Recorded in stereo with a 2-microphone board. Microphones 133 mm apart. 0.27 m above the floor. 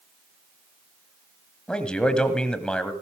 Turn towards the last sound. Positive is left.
turn(degrees=5)  # may be behind; listen again after turning